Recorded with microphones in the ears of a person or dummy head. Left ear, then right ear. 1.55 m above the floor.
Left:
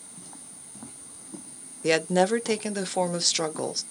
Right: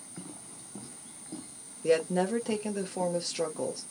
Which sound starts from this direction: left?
A woman speaking, at 1.8 s.